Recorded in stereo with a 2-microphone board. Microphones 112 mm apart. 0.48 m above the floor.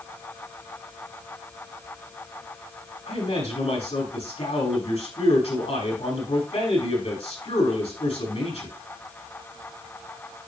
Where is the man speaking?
75° left (ahead or behind), 5 m.